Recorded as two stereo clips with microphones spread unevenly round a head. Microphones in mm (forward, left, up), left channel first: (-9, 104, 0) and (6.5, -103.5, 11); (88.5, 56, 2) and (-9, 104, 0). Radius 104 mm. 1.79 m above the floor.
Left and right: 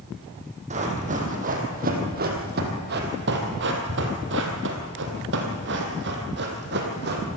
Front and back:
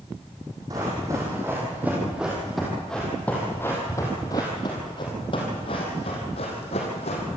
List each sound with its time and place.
0.7 s running footsteps: 140° right, 4 m; by 7.2 s 55° right, 4 m